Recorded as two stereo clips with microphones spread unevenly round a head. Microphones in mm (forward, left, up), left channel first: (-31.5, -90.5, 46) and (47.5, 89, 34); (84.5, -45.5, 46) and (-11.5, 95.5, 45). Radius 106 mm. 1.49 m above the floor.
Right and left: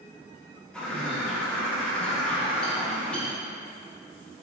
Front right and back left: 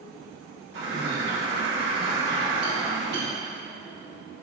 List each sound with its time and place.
0.7 s a bird: 160° left, 2.5 m